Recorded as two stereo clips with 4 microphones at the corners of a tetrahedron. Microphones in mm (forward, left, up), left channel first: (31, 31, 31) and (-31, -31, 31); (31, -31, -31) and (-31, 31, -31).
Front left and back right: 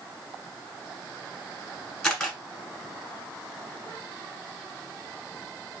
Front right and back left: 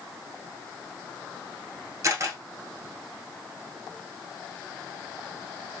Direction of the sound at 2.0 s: 125° left.